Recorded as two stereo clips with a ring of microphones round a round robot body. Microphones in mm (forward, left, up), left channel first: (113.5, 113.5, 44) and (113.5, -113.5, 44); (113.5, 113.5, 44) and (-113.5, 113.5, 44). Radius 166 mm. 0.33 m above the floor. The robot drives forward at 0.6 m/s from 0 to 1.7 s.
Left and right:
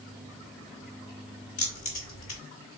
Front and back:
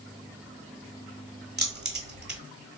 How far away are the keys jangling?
About 1.4 m.